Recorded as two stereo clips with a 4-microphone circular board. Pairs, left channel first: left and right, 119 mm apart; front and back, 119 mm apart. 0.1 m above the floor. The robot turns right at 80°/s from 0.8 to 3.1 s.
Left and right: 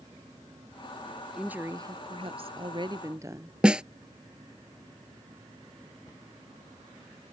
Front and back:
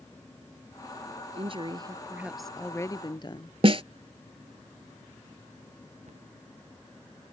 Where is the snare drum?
170° right.